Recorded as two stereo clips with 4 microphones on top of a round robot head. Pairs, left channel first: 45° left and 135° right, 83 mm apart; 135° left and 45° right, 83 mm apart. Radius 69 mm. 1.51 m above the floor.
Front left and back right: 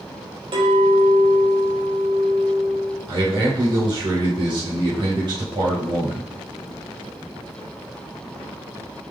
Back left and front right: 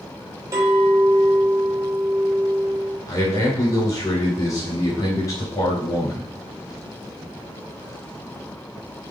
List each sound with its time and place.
0.5 s a clink: 100° right, 4 m
3.1 s a man speaking: 170° right, 4.5 m